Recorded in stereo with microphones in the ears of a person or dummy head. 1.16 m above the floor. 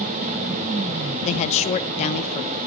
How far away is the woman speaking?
About 0.7 m.